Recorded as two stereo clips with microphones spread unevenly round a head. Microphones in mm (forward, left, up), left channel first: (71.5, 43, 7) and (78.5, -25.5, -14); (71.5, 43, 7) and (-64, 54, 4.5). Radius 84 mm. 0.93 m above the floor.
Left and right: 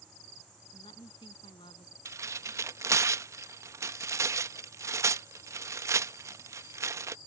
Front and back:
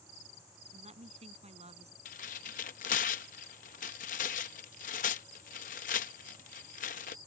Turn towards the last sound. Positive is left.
turn(degrees=-50)